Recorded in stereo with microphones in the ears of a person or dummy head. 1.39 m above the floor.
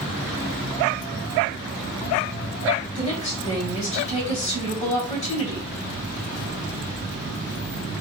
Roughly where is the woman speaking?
Left.